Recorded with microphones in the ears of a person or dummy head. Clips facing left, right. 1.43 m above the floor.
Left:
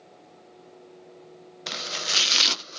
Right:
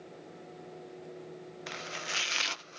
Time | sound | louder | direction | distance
1.7 | chopping | left 8 dB | 60° left (ahead or behind) | ?